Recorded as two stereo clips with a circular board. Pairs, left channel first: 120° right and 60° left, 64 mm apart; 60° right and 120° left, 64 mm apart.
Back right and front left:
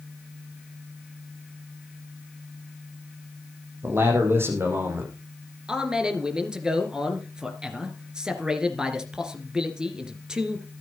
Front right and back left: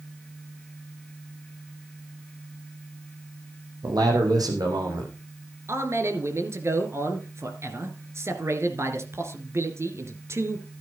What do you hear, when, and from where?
3.8 s a man speaking: 110° left, 5 m
5.7 s a man speaking: 135° left, 2.5 m